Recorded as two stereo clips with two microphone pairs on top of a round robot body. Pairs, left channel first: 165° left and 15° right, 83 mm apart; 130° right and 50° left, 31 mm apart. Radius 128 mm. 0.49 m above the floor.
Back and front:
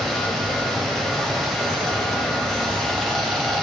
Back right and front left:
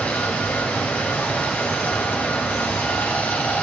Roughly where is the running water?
Right.